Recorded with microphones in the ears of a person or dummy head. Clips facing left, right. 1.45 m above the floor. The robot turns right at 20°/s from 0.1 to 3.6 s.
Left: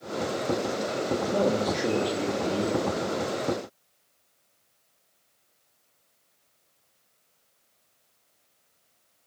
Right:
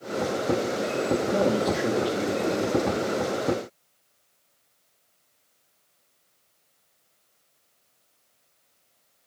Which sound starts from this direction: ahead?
A man speaking, at 1.3 s.